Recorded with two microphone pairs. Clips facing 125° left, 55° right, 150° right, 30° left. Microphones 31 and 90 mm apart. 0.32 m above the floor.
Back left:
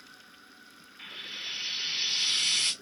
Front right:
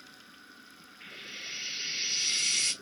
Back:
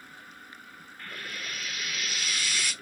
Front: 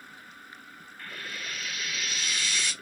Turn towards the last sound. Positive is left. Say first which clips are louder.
# back left 4 dB, even
turn(degrees=125)